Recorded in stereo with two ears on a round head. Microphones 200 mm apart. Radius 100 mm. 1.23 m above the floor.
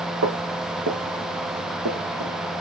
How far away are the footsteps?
About 2 m.